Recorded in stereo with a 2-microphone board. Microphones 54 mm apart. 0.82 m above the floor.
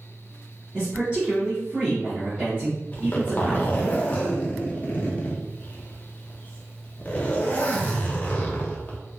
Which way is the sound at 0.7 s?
20° right (ahead or behind).